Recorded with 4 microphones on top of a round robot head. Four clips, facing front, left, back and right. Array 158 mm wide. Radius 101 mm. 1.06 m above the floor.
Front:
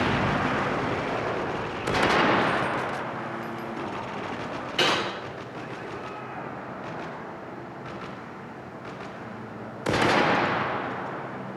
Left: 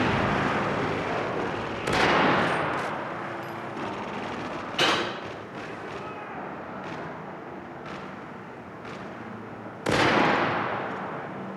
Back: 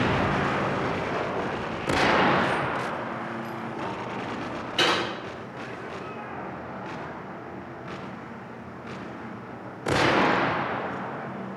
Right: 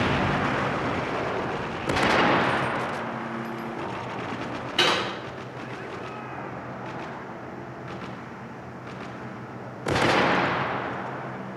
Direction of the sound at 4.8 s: 110° right.